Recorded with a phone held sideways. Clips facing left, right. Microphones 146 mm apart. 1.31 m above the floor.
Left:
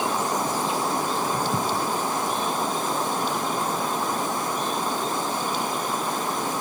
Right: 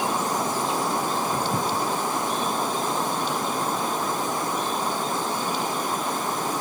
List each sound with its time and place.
Only background noise.